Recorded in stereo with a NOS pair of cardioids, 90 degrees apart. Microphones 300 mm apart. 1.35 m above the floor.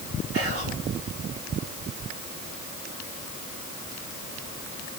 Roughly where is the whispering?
Ahead right.